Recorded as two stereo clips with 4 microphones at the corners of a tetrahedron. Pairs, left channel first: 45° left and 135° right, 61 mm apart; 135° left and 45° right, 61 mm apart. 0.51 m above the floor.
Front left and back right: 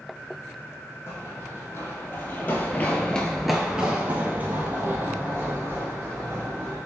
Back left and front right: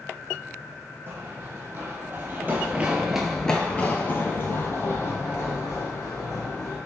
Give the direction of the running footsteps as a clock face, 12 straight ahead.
12 o'clock.